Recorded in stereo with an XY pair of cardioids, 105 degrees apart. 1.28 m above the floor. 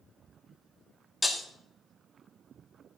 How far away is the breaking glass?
About 1.6 m.